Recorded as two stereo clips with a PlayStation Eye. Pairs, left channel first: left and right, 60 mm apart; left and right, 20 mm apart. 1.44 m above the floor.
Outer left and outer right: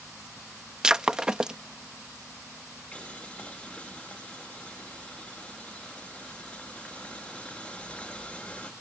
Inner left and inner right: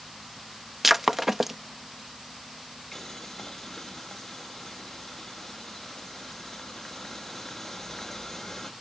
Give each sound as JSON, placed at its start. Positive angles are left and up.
{"t": 0.8, "sound": "breaking glass", "side_deg": -10}
{"t": 2.9, "sound": "boiling", "side_deg": 25}